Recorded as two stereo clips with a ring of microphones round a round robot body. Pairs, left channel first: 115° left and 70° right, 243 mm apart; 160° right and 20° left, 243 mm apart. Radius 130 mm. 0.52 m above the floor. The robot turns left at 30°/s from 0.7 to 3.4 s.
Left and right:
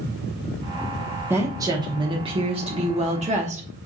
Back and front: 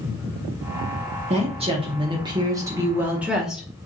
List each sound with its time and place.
1.3 s a woman speaking: straight ahead, 0.9 m; by 3.7 s 60° right, 0.9 m